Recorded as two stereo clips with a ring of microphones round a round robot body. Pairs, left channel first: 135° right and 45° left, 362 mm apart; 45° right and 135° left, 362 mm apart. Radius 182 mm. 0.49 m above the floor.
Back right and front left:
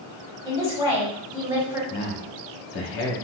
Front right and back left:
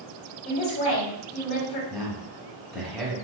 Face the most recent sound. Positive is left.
turn(degrees=-130)